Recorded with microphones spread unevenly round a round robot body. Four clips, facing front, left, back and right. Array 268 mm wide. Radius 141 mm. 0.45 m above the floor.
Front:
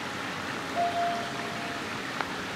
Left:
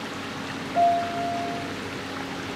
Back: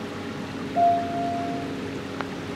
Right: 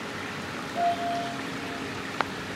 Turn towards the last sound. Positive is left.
turn(degrees=85)